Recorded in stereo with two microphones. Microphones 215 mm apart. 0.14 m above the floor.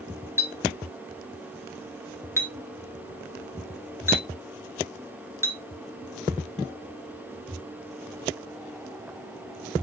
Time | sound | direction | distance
0.4 | a clink | 10° right (ahead or behind) | 1.2 m